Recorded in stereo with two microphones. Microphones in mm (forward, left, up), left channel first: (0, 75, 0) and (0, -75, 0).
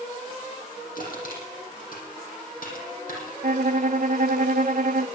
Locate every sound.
0.9 s crushing: 70° left (ahead or behind), 8.5 m
3.4 s a violin: 65° right (ahead or behind), 0.7 m